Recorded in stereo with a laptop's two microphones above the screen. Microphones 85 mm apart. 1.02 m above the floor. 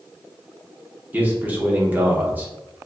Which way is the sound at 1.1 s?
20° right (ahead or behind).